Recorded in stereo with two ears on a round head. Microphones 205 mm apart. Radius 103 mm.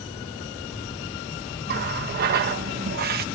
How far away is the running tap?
About 1.1 m.